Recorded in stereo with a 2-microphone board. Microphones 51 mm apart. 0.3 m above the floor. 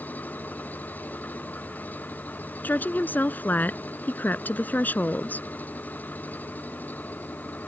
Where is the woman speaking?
40° left (ahead or behind).